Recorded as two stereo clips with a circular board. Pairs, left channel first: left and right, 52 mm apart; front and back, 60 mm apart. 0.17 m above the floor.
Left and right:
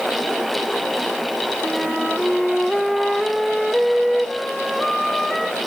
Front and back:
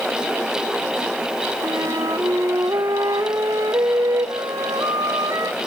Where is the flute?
Straight behind, 1.0 m.